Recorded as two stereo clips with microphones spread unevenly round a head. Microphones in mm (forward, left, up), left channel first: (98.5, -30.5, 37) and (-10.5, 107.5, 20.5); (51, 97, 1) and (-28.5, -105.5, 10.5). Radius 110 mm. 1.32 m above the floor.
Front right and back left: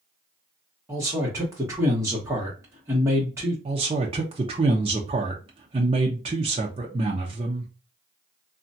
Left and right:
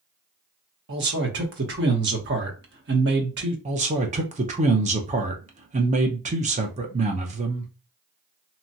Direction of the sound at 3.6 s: 170° right.